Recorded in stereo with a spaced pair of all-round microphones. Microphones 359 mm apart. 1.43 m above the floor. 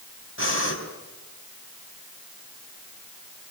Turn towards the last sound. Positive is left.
turn(degrees=35)  # may be behind; listen again after turning